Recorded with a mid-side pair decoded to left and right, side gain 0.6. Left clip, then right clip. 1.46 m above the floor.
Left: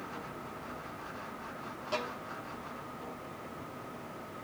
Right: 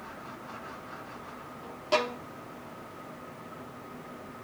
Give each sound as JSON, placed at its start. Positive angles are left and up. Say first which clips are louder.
{"t": 1.9, "sound": "a violin", "louder": "right 9 dB", "azimuth_deg": -45}